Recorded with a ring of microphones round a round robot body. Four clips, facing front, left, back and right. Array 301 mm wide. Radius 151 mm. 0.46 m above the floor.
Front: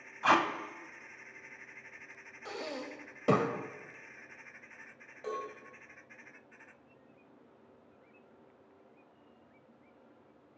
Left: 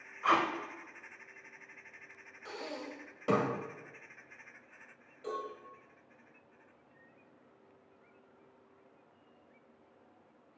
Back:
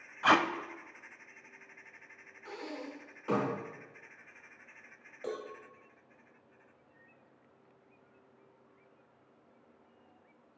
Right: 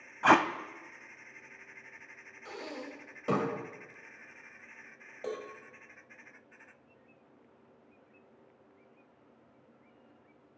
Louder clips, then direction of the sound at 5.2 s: Right 1 dB, front 1 dB; 120° right.